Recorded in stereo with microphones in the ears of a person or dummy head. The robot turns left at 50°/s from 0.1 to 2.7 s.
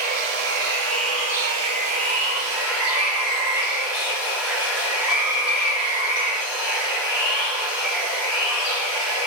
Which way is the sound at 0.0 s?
45° right.